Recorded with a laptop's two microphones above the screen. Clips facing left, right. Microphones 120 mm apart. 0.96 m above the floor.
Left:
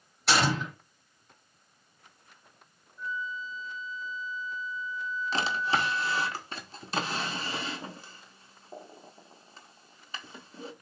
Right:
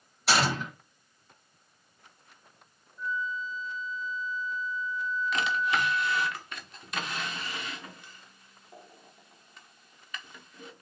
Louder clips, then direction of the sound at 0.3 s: Left 1 dB; centre (ahead or behind).